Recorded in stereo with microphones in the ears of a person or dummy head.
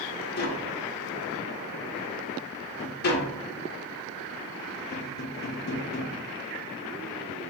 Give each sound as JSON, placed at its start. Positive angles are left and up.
{"t": 0.4, "sound": "tapping", "side_deg": 40, "distance_m": 0.9}